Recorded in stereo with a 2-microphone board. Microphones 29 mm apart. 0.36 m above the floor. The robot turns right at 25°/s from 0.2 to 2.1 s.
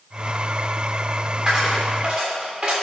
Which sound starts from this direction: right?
A dropped coin, at 1.5 s.